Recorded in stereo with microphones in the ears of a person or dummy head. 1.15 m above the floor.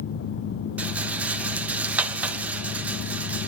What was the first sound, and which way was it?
A rattle, 5° right (ahead or behind).